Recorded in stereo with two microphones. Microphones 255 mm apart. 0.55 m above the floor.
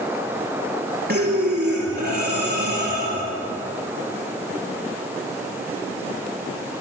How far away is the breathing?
About 5.5 m.